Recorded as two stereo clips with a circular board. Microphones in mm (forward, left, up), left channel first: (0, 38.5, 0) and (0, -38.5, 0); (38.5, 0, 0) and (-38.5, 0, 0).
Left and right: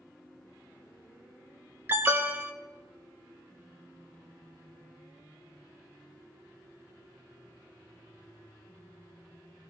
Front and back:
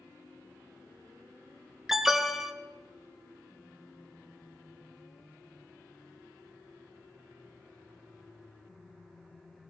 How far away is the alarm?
About 0.9 m.